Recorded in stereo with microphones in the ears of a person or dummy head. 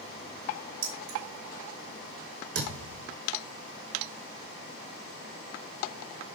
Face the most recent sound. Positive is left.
turn(degrees=-55)  # may be behind; listen again after turning